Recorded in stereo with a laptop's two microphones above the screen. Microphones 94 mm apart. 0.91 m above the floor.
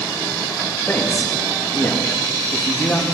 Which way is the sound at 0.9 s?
35° left (ahead or behind).